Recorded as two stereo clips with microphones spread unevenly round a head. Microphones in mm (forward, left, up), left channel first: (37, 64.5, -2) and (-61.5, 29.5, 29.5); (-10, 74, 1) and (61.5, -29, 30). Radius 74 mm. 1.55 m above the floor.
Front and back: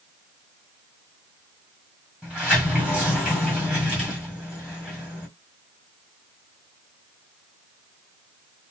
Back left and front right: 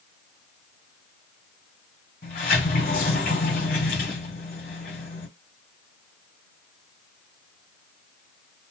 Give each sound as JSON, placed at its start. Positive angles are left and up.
{"t": 2.2, "sound": "a sliding door", "azimuth_deg": 140, "distance_m": 2.0}